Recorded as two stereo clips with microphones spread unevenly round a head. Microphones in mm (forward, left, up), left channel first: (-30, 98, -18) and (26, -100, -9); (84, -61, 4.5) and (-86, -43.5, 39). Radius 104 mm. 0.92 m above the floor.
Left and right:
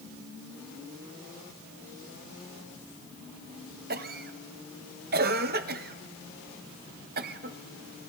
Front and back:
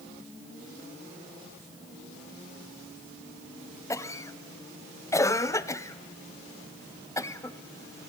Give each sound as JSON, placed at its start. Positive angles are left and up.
{"t": 3.9, "sound": "a cough", "azimuth_deg": -55, "distance_m": 0.8}